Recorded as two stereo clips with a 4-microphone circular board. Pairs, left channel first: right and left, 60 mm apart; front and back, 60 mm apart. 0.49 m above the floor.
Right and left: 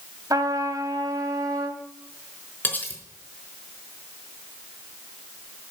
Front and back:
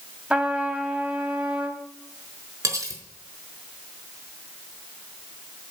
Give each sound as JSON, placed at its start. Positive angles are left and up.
{"t": 0.3, "sound": "a trumpet", "azimuth_deg": 105, "distance_m": 1.6}
{"t": 2.6, "sound": "cutlery clinking", "azimuth_deg": -150, "distance_m": 4.0}